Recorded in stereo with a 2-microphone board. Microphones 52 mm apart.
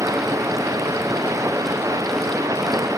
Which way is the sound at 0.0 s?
90° right.